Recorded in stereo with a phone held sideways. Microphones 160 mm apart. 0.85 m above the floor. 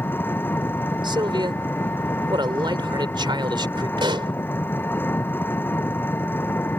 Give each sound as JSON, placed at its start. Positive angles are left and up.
{"t": 0.0, "sound": "an engine running", "side_deg": 10}
{"t": 1.0, "sound": "a man speaking", "side_deg": -30}
{"t": 4.0, "sound": "a pop", "side_deg": -30}